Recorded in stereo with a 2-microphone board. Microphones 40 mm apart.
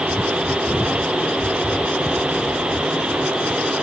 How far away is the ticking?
I don't hear ticking.